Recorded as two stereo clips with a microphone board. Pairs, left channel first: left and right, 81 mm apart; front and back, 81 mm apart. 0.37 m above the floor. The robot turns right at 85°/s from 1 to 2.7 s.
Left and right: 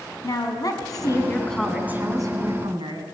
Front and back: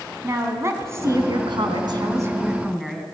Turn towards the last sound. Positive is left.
turn(degrees=-90)